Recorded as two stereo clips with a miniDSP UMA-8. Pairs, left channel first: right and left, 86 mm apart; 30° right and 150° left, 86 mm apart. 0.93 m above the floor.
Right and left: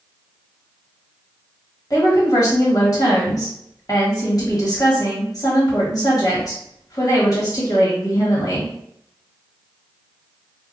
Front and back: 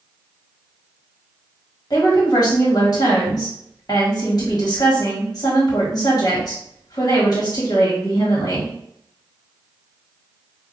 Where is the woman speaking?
60° right, 1.3 m.